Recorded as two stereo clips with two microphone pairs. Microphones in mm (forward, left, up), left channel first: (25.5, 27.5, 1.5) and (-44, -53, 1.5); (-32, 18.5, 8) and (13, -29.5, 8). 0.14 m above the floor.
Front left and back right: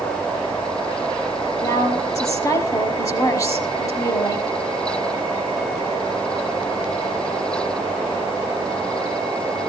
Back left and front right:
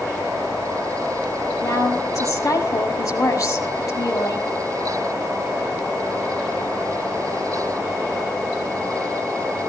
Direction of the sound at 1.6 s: 105° left.